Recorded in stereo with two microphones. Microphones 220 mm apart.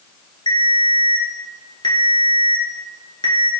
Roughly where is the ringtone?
Left.